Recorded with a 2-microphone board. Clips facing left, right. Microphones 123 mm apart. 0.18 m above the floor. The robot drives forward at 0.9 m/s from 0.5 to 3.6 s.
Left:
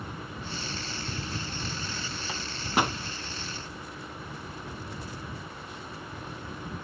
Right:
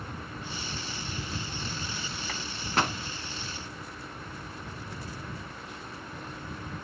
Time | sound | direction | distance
2.3 | a microwave | 20° left (ahead or behind) | 0.9 m